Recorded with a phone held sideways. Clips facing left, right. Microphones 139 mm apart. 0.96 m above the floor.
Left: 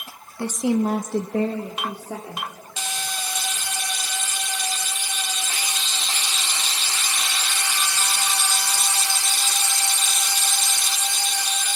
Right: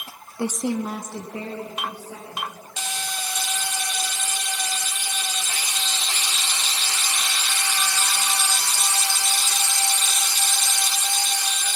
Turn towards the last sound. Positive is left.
turn(degrees=80)